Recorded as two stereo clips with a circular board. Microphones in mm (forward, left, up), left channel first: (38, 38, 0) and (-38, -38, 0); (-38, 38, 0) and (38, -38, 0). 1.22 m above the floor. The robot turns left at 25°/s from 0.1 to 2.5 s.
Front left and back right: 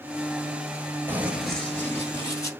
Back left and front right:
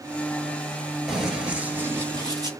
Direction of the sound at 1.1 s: 125° right.